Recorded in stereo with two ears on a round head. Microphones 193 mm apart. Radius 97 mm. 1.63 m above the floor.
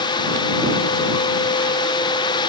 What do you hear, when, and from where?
Only background noise.